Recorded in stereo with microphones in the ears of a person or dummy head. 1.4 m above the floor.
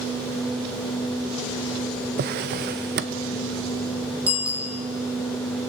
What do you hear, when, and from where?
2.2 s a drawer: 45° right (ahead or behind), 0.6 m
4.3 s a bicycle bell: 5° right (ahead or behind), 2.5 m